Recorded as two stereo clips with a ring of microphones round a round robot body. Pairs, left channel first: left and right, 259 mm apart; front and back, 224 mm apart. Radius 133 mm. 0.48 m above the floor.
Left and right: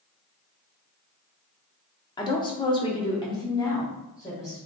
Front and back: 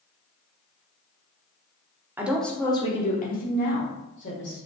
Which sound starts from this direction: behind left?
A woman speaking, at 2.2 s.